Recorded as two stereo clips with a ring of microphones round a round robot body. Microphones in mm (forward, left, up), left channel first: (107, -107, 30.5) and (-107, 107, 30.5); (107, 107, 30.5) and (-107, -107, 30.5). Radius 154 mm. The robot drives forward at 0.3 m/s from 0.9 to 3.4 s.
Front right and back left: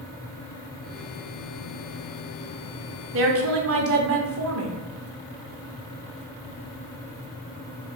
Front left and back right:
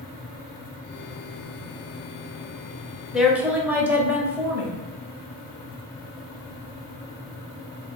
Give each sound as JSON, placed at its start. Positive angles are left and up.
{"t": 3.1, "sound": "a woman speaking", "azimuth_deg": 140, "distance_m": 0.8}